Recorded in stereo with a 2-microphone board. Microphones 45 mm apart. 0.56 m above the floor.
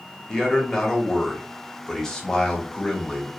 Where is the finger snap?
No finger snap in this recording.